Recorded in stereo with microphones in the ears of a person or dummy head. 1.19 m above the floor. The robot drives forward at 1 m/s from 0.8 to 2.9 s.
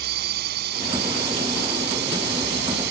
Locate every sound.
0.0 s a drone: 60° right (ahead or behind)